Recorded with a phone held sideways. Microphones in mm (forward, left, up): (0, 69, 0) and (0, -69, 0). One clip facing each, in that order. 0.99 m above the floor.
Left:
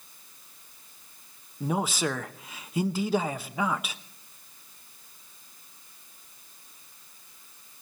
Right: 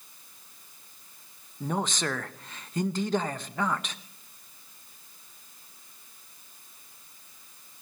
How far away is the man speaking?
About 0.8 m.